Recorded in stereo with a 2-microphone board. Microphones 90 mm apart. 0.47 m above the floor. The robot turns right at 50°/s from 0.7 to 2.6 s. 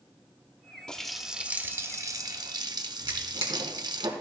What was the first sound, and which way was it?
A running tap, 170° left.